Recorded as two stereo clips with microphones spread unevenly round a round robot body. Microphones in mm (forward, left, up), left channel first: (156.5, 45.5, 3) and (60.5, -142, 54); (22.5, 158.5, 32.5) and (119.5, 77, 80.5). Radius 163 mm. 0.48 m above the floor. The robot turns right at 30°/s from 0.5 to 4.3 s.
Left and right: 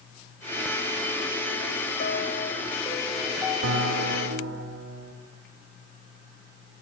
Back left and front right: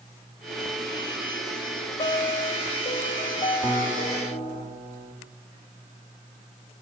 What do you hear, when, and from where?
2.0 s a piano: 115° left, 1.4 m; by 4.6 s 175° right, 1.4 m
3.6 s a guitar: 120° right, 2.0 m; by 5.1 s 100° right, 2.0 m